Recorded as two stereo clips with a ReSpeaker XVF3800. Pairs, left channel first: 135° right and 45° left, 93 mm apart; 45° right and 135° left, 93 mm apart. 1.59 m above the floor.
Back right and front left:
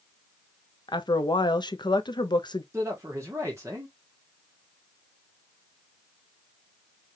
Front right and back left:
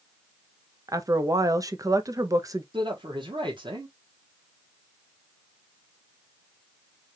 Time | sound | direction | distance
0.9 | a woman speaking | 175° right | 0.7 m
2.7 | a man speaking | 105° left | 1.5 m